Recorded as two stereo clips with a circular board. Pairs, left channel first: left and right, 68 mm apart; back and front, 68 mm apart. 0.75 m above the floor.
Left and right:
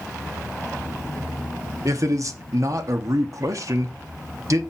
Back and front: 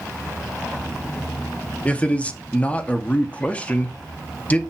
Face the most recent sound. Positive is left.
turn(degrees=-115)